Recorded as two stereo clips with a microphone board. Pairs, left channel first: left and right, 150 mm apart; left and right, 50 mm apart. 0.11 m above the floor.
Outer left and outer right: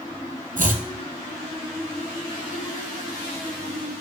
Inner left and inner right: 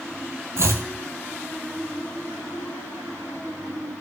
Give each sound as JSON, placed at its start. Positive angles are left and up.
{"t": 0.6, "sound": "chopping", "side_deg": -65, "distance_m": 1.2}